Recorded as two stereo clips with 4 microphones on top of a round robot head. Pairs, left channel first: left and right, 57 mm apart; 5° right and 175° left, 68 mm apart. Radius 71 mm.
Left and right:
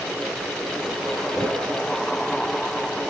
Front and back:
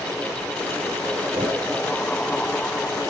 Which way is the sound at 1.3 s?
175° left.